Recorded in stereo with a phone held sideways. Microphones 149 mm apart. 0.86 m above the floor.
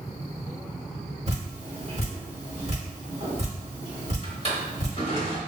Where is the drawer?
40° left (ahead or behind), 1.2 m.